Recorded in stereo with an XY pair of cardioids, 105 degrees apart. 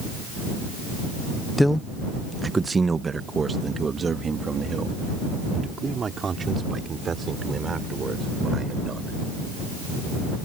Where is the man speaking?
10° left; by 9.2 s 40° right.